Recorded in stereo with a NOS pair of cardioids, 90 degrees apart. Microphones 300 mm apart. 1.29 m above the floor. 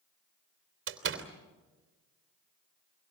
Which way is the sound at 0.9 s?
40° right.